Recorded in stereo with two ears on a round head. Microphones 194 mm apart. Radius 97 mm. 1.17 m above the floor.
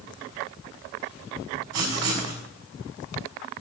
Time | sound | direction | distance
1.7 | writing | 85° right | 5.5 m